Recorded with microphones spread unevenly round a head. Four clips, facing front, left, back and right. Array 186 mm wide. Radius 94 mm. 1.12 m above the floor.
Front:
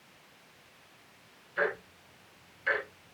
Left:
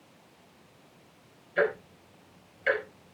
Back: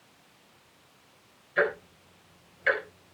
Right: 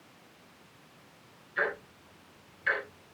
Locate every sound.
1.6 s ticking: 120° left, 4.5 m